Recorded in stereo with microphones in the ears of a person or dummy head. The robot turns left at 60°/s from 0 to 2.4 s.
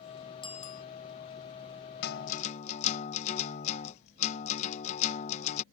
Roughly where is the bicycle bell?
Left.